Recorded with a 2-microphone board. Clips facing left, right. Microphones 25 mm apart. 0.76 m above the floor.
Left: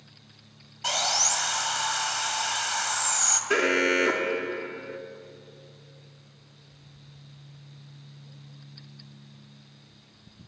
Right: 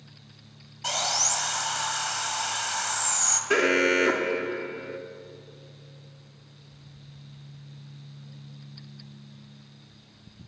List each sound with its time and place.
0.8 s sawing: 15° left (ahead or behind), 1.8 m
3.5 s an alarm: 5° right (ahead or behind), 1.3 m